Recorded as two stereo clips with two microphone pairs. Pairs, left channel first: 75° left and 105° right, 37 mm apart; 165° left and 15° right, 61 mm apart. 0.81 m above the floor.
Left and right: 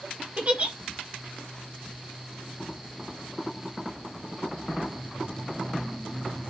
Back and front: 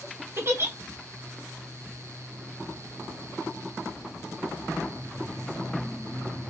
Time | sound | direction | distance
0.4 | a giggle | 55° right | 0.9 m